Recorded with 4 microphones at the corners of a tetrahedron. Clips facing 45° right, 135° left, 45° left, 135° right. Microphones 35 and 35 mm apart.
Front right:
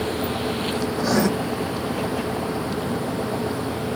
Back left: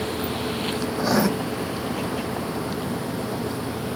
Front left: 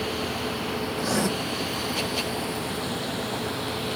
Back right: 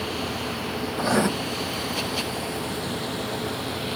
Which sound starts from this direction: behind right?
Writing, at 1.0 s.